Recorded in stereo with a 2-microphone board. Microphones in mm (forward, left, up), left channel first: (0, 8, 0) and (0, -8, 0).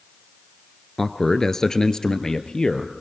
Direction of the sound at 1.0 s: 15° left (ahead or behind).